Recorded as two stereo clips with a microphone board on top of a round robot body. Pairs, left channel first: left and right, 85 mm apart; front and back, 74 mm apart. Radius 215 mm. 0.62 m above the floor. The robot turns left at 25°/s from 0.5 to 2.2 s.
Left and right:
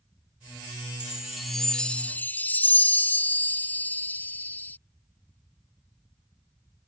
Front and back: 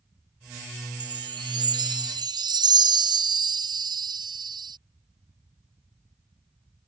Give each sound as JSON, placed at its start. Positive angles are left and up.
{"t": 1.0, "sound": "a chime", "azimuth_deg": -170}